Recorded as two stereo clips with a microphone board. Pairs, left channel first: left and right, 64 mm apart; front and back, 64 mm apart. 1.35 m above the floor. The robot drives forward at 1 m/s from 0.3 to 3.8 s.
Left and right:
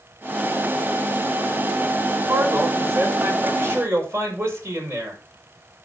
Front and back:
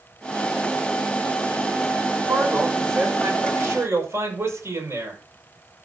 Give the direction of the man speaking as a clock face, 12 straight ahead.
4 o'clock.